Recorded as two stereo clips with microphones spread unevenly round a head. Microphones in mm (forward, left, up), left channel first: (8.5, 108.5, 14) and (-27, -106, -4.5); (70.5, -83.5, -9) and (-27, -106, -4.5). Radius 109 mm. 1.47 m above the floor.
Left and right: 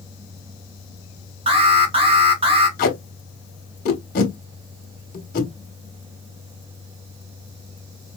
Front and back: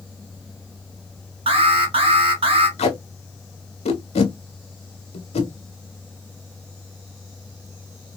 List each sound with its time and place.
1.5 s an alarm: 155° right, 1.1 m
2.8 s tape being pulled: 30° left, 1.1 m